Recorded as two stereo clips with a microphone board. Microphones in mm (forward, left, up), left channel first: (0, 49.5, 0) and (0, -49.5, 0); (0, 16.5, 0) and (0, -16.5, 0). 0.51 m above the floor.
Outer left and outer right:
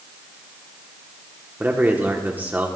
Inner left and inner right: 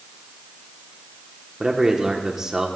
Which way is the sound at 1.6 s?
20° right (ahead or behind).